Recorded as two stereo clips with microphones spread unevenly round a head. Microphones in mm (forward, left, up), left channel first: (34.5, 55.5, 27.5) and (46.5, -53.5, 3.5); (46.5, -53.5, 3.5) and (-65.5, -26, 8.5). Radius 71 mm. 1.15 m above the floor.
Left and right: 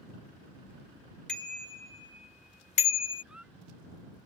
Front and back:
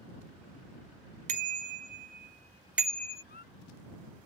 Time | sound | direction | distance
1.3 | a bicycle bell | straight behind | ?
3.2 | a squeak | straight ahead | ?